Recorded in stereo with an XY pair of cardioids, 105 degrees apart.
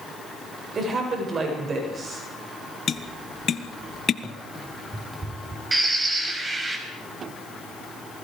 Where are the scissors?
No scissors in this recording.